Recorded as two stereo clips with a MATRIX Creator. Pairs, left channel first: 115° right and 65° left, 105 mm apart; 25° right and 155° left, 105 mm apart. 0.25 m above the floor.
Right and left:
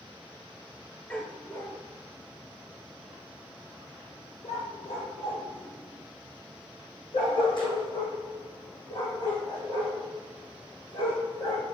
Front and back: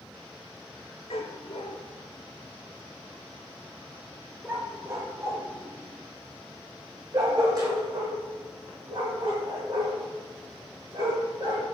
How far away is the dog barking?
About 1.1 m.